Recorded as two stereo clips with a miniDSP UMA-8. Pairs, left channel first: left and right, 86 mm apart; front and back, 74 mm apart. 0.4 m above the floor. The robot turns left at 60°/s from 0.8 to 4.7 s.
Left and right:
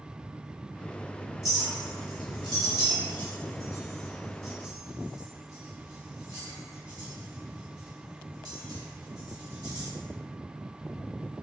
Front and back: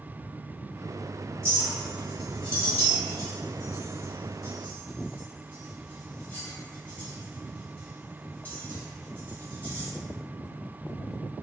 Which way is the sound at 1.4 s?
135° left.